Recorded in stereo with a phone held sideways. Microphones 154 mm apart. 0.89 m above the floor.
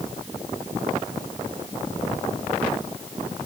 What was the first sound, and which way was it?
Only background noise.